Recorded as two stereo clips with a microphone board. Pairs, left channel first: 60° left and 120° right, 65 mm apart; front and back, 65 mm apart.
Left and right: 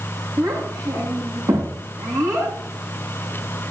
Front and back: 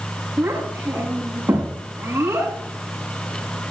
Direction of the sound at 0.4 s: 125° right.